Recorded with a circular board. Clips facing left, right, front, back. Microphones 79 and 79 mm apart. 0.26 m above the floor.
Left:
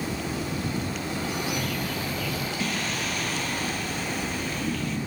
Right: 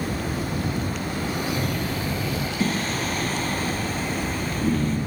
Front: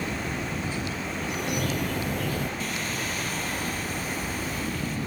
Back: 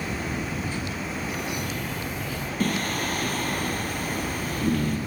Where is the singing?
140° right, 2.5 m.